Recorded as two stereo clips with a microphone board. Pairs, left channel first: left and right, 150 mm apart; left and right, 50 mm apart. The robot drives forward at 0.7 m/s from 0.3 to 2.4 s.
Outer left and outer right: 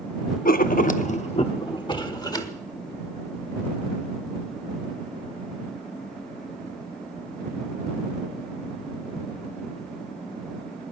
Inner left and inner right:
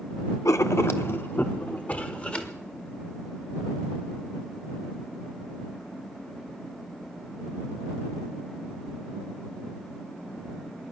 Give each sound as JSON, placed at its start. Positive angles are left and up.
{"t": 0.5, "sound": "writing", "side_deg": 75, "distance_m": 0.7}